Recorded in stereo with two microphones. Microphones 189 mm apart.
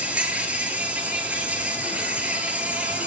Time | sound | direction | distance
0.0 | an insect | 5° right (ahead or behind) | 1.2 m